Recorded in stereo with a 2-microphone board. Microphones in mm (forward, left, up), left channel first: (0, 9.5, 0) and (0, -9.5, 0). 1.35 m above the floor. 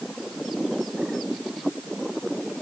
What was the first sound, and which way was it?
Only background noise.